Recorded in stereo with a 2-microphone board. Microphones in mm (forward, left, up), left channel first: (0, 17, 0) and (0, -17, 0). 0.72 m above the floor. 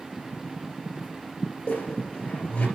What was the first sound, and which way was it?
A squeak, 35° left (ahead or behind).